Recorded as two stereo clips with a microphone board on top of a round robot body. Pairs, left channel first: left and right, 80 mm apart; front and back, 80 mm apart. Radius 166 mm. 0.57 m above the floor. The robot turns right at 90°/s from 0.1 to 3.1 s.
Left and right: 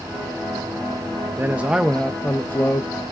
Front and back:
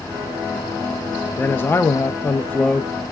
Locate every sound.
1.4 s a man speaking: 50° right, 0.6 m; by 2.9 s 85° left, 0.6 m